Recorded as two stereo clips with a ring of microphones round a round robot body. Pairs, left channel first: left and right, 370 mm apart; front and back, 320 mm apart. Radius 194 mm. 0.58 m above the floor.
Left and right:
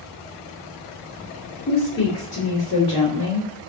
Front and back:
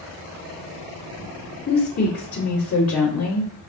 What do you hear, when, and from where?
1.7 s a woman speaking: 30° left, 2.0 m